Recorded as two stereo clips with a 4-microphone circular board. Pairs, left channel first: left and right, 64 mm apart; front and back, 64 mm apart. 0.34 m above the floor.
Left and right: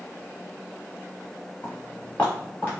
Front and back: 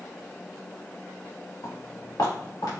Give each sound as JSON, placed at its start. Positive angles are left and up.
{"t": 1.6, "sound": "footsteps", "azimuth_deg": 30, "distance_m": 1.9}